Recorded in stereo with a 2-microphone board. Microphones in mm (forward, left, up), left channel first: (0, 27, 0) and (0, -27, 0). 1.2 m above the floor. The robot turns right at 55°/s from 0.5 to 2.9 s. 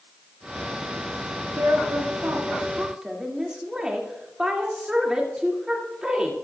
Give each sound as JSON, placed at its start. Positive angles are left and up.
{"t": 1.3, "sound": "a woman speaking", "azimuth_deg": -105, "distance_m": 2.0}